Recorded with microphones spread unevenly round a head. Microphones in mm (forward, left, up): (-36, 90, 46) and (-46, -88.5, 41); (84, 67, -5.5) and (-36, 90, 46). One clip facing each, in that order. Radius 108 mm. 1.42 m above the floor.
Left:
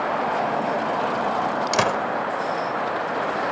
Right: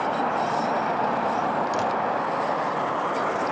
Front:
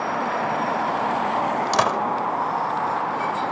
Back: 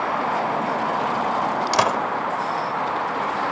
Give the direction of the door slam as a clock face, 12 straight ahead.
9 o'clock.